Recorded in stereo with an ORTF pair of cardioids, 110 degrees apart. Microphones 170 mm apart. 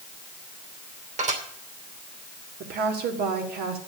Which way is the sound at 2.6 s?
70° right.